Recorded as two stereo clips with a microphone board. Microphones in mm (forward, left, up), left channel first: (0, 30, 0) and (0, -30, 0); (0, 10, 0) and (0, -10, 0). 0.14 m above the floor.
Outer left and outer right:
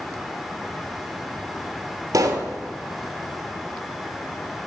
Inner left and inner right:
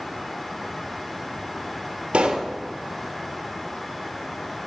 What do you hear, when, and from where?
2.1 s a pop: 65° right (ahead or behind), 1.6 m